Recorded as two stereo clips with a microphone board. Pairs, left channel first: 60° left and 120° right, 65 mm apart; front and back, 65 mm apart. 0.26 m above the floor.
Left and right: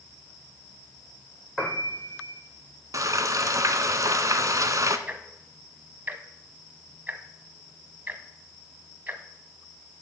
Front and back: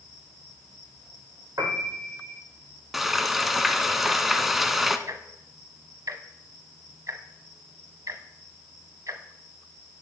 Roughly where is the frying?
Right.